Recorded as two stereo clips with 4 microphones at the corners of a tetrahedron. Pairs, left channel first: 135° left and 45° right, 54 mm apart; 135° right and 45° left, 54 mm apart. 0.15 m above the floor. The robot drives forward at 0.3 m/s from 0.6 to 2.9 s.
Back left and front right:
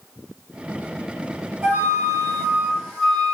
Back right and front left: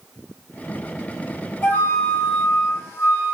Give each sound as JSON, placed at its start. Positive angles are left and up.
{"t": 1.6, "sound": "a flute", "azimuth_deg": -115, "distance_m": 1.7}